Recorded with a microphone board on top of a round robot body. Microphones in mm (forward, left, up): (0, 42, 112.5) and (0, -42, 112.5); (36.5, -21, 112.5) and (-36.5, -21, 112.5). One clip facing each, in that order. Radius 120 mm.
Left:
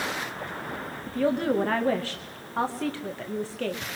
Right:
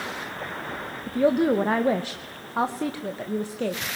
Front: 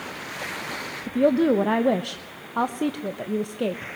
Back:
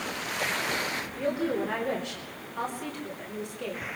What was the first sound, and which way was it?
A woman speaking, 20° right.